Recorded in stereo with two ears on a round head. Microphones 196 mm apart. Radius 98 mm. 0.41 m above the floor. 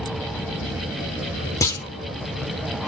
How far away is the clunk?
About 1.1 m.